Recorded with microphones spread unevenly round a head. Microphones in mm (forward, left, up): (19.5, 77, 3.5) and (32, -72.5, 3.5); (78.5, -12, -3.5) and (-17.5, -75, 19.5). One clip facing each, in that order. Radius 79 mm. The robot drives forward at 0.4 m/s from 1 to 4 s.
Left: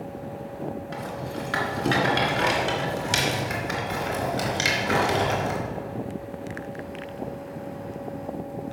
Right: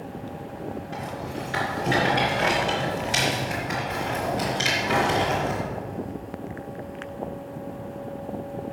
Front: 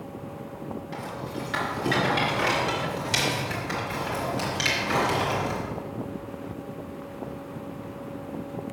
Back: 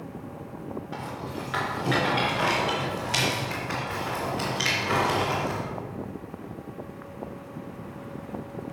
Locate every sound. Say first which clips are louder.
0.9 s a rattle: even, front 1 dB; 90° left, 3 m; by 5.6 s 115° left, 3.5 m